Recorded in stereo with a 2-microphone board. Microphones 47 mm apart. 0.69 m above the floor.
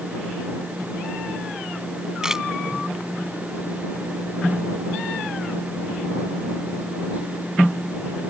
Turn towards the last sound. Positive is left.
turn(degrees=-10)  # may be behind; listen again after turning